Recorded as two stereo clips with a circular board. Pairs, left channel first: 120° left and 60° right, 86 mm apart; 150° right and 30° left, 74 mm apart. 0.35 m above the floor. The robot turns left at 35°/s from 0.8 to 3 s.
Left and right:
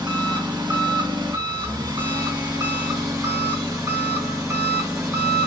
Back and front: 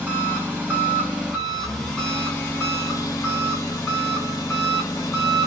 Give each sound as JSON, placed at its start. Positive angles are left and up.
{"t": 0.0, "sound": "an engine running", "azimuth_deg": -30, "distance_m": 2.5}